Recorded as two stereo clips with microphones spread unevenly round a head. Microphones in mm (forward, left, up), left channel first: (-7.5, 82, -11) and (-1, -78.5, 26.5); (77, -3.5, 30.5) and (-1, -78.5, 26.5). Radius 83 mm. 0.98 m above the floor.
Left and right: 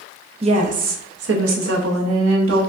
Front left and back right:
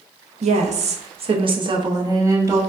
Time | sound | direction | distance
0.4 | a woman speaking | 145° right | 0.7 m